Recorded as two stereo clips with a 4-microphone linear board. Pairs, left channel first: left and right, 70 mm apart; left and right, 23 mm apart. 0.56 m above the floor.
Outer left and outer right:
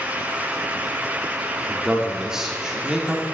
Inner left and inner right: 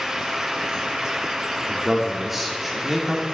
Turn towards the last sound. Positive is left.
turn(degrees=-5)  # may be behind; listen again after turning